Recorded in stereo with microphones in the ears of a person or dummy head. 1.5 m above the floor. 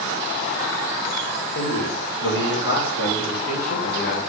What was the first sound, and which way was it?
A man speaking, 75° left (ahead or behind).